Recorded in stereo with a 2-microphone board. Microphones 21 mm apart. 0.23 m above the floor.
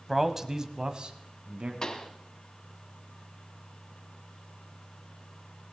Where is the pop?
30° left (ahead or behind), 1.2 m.